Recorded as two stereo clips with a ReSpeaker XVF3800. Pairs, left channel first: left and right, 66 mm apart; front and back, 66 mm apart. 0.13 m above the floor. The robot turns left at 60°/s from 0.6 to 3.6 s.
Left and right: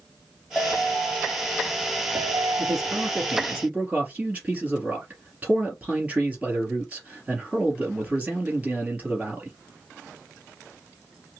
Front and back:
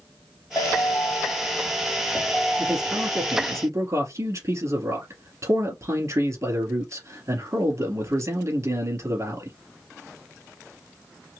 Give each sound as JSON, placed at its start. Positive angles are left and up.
{"t": 0.6, "sound": "a ringtone", "azimuth_deg": 15, "distance_m": 2.5}
{"t": 2.6, "sound": "a man speaking", "azimuth_deg": -95, "distance_m": 2.5}